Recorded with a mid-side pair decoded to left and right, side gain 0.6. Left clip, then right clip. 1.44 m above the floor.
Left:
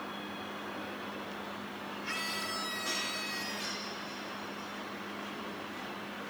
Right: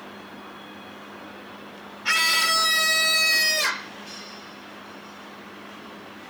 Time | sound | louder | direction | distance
2.0 | a scream | right 17 dB | 65° right | ?